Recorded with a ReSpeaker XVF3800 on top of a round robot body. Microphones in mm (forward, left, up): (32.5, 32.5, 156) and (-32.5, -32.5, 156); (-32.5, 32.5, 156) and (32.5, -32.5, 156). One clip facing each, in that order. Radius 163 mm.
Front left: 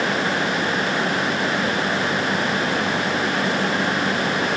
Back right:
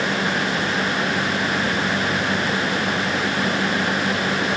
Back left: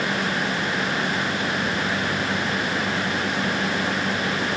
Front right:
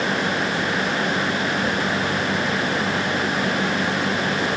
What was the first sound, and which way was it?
Only background noise.